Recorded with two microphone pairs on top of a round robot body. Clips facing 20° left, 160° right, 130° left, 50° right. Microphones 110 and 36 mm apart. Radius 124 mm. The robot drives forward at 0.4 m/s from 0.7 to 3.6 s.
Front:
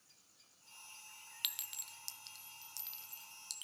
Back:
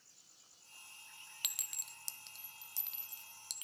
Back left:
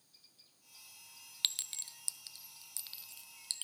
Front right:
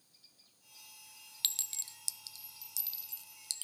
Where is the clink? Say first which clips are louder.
Front 1 dB, back left 1 dB; 170° left, 0.8 m; by 3.6 s 175° left, 1.6 m.